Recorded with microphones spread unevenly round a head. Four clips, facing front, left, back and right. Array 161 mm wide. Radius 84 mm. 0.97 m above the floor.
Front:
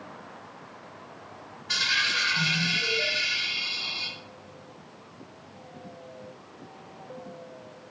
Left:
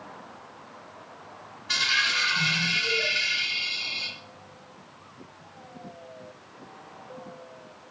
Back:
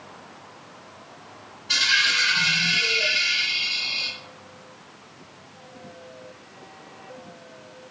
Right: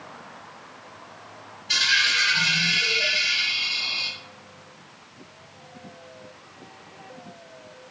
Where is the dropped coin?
110° left, 2 m.